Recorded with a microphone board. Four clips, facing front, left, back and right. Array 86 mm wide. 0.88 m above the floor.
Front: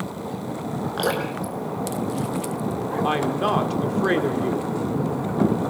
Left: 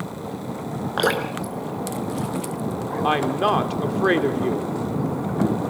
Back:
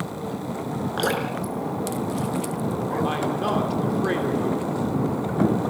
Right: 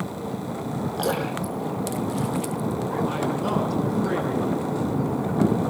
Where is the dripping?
95° left, 4.5 m.